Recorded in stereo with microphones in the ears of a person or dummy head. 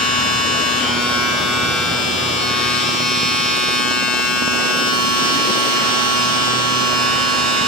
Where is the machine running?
5° right (ahead or behind), 3.5 m.